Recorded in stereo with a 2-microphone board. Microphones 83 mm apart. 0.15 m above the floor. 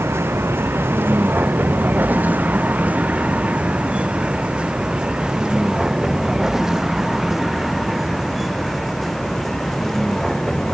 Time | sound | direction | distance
0.0 | a vehicle | 30° right (ahead or behind) | ?